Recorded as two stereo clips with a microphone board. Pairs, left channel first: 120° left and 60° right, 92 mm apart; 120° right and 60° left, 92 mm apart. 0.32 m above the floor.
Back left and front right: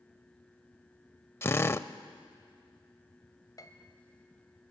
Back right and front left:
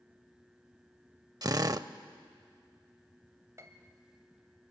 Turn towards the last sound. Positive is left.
turn(degrees=100)